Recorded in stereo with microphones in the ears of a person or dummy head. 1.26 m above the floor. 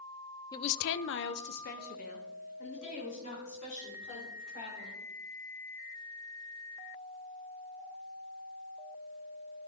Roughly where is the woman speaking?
Centre.